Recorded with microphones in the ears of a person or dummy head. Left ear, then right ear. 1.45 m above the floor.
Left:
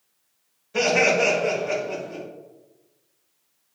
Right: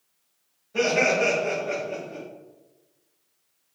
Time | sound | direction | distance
0.7 | laughter | 45° left (ahead or behind) | 1.8 m